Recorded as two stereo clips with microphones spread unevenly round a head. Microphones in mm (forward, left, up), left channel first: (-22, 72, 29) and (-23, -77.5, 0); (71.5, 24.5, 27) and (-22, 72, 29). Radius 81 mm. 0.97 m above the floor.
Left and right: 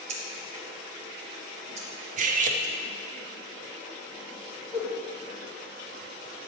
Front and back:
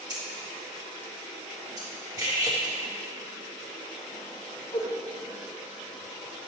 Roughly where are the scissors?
Behind right.